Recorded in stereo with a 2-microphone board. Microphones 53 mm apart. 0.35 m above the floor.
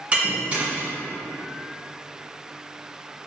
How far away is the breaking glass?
About 1.7 m.